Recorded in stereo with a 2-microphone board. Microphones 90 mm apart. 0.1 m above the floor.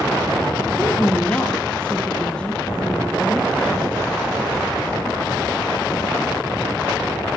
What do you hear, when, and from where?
0.8 s a woman speaking: 10° left (ahead or behind), 2.5 m